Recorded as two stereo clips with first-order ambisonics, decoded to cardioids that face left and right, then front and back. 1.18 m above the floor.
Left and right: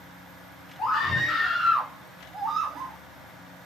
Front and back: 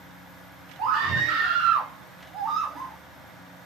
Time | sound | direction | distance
0.8 | a scream | 155° left | 1.8 m